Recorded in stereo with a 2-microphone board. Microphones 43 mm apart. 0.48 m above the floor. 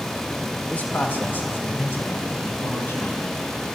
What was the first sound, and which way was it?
A man speaking, 55° left (ahead or behind).